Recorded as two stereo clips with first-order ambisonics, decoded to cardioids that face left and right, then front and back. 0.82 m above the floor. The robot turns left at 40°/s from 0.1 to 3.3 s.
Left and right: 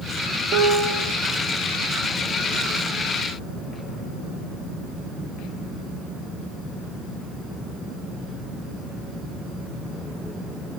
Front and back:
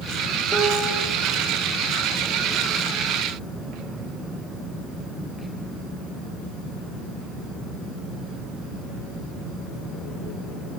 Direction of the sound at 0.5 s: 70° right.